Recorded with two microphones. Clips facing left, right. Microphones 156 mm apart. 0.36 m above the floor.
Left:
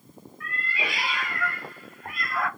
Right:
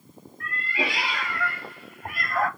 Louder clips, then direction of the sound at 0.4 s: Right 4 dB; 70° right (ahead or behind).